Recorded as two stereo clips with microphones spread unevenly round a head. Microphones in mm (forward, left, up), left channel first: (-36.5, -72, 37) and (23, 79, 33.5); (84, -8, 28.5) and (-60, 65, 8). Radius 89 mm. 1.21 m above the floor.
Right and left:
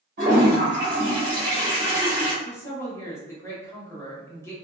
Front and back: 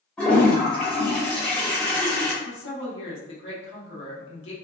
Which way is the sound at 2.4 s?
40° right.